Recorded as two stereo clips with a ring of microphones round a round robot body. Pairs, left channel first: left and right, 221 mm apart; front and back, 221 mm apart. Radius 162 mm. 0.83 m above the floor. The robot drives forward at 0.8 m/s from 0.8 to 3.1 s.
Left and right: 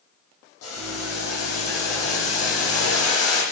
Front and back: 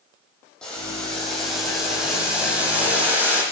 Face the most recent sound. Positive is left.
turn(degrees=95)